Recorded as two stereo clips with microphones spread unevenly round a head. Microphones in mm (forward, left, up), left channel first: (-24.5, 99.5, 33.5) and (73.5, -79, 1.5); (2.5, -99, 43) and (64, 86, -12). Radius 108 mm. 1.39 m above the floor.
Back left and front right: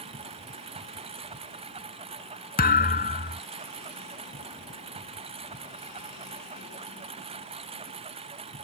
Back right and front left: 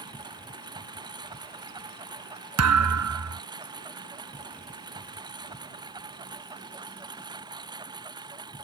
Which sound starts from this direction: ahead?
A lawn mower, at 0.0 s.